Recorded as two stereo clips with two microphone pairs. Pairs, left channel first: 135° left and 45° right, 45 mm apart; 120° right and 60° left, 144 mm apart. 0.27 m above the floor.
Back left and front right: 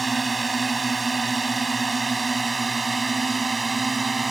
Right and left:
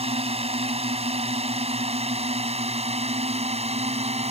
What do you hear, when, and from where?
0.0 s a drone: 45° left